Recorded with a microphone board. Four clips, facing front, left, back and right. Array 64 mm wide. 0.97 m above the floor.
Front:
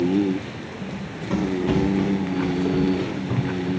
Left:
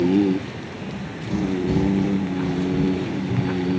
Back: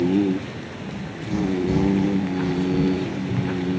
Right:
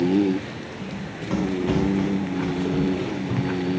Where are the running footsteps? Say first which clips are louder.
Left 1 dB, front 1 dB; 50° right, 4.5 m; by 3.7 s 25° right, 5 m.